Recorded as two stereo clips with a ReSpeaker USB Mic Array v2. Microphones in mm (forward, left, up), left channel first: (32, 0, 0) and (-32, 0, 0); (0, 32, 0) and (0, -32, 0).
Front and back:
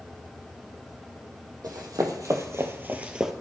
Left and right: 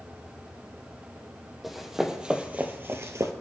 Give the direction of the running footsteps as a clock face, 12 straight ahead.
6 o'clock.